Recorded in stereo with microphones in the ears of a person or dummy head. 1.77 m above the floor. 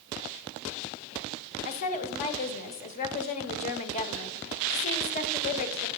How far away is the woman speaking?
About 1.1 m.